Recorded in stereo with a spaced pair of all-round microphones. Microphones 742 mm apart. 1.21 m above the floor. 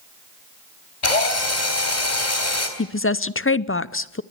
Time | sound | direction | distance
1.0 | a drill | 70° left (ahead or behind) | 3.5 m
2.8 | a woman speaking | 20° left (ahead or behind) | 0.5 m